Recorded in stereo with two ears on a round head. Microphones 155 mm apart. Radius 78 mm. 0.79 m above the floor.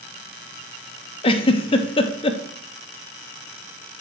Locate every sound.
1.2 s a giggle: 30° left (ahead or behind), 0.5 m